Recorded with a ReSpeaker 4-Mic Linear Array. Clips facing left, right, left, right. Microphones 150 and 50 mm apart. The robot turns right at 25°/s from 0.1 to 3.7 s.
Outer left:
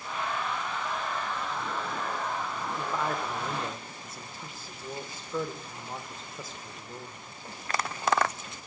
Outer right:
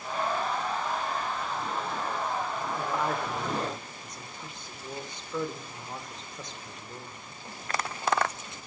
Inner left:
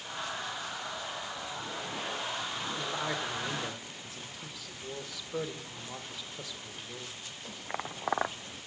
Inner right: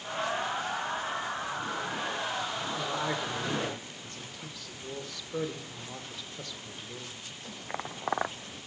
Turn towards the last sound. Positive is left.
turn(degrees=5)  # may be behind; listen again after turning